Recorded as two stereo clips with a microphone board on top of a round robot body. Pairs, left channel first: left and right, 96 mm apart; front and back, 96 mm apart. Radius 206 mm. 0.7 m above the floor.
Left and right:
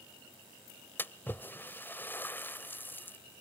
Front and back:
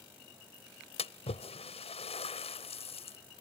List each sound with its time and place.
1.0 s a splash: 20° left